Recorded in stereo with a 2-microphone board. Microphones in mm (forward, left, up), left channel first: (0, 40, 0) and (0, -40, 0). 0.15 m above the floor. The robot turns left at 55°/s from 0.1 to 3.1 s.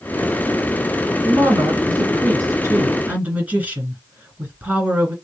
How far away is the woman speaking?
About 2 m.